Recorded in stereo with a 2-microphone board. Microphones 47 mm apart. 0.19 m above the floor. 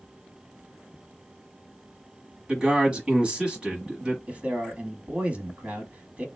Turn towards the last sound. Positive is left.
turn(degrees=-30)  # may be behind; listen again after turning